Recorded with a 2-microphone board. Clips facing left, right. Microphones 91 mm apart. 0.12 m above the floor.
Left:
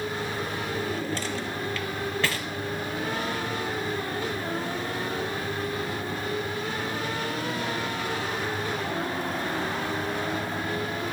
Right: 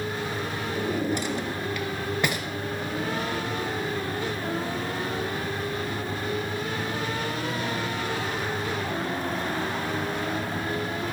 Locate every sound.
0.8 s a drawer: 15° right (ahead or behind), 1.0 m